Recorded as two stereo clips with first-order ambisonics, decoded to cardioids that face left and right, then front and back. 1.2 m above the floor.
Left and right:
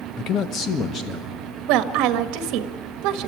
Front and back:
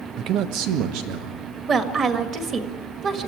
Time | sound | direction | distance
0.2 | a man speaking | 135° left | 1.0 m
1.7 | a woman speaking | 115° right | 1.7 m